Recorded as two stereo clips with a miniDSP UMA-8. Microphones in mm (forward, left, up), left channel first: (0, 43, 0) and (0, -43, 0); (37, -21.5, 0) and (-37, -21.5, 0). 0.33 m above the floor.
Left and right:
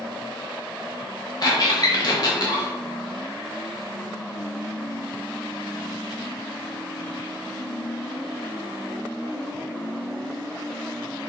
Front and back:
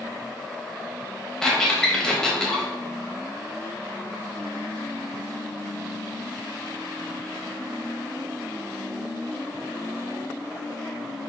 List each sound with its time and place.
1.4 s a squeak: 80° left, 0.9 m